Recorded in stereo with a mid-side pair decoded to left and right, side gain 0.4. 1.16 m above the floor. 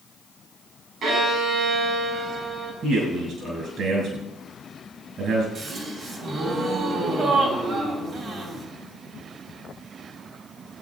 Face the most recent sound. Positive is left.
turn(degrees=-55)